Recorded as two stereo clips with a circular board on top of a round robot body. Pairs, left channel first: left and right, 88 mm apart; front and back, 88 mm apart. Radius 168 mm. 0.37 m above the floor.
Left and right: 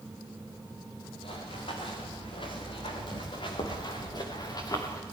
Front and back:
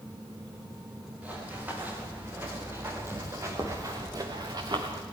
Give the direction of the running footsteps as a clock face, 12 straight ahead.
8 o'clock.